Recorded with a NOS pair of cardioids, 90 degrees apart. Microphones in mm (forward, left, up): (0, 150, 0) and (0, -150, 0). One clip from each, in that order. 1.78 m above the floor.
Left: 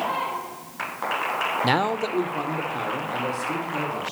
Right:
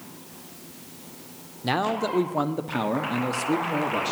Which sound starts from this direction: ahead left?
A man speaking, at 1.6 s.